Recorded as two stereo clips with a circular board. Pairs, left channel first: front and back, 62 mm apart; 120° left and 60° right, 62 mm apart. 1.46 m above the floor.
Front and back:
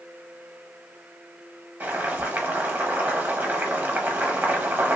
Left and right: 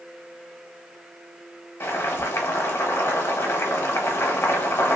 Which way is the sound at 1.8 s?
135° left.